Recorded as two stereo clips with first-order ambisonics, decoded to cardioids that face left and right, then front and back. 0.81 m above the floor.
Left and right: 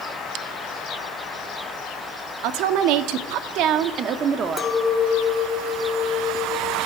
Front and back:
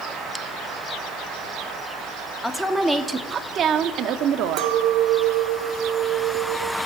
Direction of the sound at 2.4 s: 85° right.